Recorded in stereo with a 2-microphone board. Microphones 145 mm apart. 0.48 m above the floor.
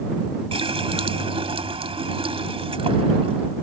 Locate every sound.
0.5 s a running tap: 40° right (ahead or behind)